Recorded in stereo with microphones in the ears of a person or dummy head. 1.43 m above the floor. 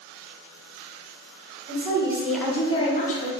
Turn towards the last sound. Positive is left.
turn(degrees=50)  # may be behind; listen again after turning